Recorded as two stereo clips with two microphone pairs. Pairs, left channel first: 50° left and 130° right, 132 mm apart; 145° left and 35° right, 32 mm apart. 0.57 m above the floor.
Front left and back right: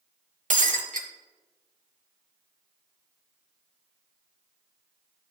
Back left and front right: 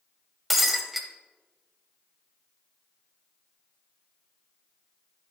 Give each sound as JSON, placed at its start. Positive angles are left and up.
{"t": 0.5, "sound": "breaking glass", "azimuth_deg": -120, "distance_m": 0.9}